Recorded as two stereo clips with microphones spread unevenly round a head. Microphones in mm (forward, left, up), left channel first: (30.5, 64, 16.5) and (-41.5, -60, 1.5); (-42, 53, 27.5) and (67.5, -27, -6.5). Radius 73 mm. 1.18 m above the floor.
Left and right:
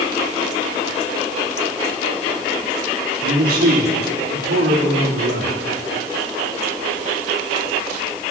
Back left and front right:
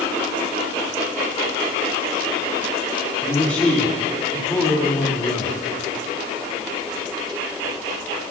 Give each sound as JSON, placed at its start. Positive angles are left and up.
{"t": 3.2, "sound": "a man speaking", "azimuth_deg": -130, "distance_m": 3.0}